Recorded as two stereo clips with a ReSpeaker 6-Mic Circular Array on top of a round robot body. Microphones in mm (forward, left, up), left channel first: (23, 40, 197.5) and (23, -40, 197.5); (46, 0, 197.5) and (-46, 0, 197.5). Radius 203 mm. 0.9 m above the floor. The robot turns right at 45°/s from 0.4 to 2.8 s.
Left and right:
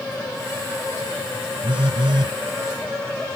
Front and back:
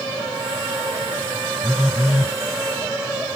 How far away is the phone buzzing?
About 1.1 m.